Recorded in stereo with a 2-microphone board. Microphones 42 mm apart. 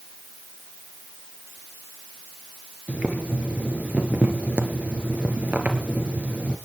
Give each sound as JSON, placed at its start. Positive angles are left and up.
{"t": 2.9, "sound": "boiling", "side_deg": -35, "distance_m": 2.5}